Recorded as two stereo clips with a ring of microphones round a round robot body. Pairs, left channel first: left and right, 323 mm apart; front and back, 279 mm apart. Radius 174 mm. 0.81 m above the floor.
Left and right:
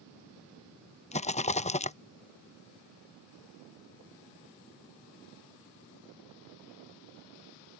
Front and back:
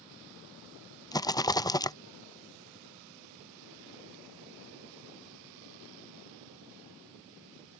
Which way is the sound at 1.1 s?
55° left.